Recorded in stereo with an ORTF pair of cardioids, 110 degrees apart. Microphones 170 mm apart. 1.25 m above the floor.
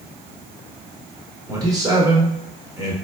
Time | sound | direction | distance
1.5 | a man speaking | 20° right | 1.6 m